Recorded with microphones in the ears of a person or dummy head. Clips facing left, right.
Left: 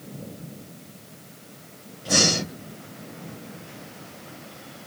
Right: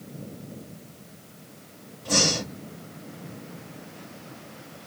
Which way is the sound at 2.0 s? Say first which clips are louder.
Left 2 dB; 10° left (ahead or behind).